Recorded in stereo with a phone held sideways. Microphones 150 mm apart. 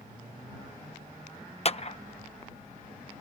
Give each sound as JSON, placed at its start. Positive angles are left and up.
{"t": 1.6, "sound": "a clap", "side_deg": 45}